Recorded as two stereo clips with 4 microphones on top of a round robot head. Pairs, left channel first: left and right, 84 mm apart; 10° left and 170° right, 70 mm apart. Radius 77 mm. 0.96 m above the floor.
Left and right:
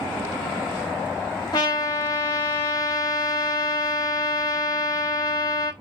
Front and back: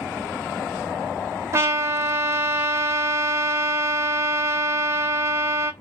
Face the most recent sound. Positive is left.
turn(degrees=145)